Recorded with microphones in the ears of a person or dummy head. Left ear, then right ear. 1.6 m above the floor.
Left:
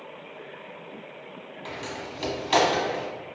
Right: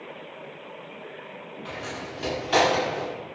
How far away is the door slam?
About 0.8 m.